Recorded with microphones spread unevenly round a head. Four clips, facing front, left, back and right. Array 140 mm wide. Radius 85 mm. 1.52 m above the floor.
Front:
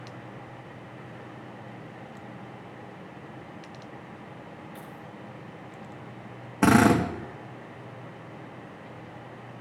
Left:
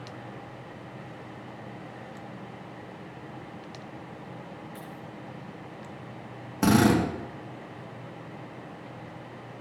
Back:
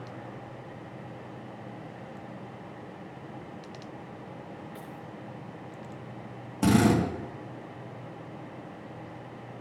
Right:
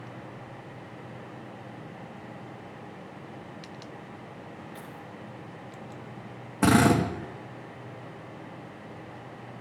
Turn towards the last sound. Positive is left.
turn(degrees=-10)